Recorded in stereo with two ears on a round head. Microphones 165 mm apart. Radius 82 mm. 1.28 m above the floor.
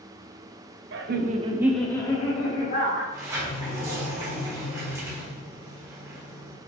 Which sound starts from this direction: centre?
A sliding door, at 3.1 s.